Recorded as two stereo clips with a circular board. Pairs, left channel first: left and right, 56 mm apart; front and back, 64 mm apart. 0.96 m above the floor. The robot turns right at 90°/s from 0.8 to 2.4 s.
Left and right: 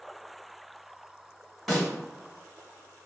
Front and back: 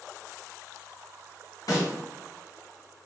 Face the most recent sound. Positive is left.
turn(degrees=65)